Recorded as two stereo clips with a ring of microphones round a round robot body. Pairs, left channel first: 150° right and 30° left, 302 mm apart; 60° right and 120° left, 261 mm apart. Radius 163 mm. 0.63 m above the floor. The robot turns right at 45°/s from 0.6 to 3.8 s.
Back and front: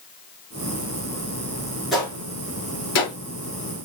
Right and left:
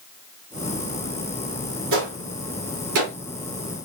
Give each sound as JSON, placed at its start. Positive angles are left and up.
{"t": 1.9, "sound": "a gunshot", "azimuth_deg": 120, "distance_m": 2.5}